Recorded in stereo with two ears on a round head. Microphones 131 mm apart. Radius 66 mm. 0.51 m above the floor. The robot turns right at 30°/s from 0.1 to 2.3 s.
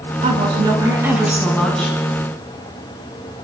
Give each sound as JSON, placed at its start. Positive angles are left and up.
{"t": 0.2, "sound": "a woman speaking", "azimuth_deg": -40, "distance_m": 6.0}